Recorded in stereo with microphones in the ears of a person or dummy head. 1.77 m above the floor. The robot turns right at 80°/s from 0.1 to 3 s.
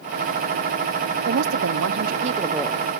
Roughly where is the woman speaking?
Behind right.